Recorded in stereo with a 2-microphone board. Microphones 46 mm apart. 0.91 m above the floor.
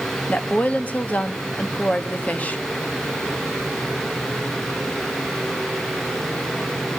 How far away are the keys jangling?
I don't hear keys jangling.